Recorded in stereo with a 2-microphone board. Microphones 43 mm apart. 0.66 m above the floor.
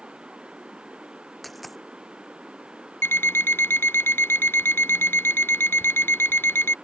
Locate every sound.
0.0 s running water: 25° right (ahead or behind)
1.4 s a dropped coin: centre (ahead or behind)
3.0 s an alarm clock: 65° left (ahead or behind)